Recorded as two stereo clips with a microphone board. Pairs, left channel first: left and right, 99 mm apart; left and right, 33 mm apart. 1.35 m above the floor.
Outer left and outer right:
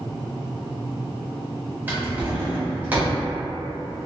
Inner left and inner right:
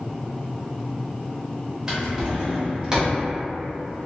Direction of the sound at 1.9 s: 20° right (ahead or behind).